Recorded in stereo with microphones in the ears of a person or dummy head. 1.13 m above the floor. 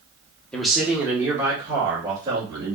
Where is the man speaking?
5° left (ahead or behind), 0.8 m; by 2.8 s 20° right (ahead or behind), 2.5 m.